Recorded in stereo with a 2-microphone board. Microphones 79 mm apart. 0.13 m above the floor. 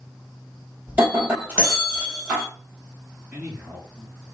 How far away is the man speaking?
About 2.5 m.